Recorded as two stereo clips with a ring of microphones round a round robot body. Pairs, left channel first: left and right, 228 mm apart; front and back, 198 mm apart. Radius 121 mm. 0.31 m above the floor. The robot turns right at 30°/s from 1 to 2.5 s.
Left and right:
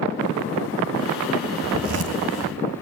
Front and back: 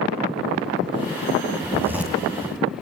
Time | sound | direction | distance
1.6 | a zipper | 105° right | 2.5 m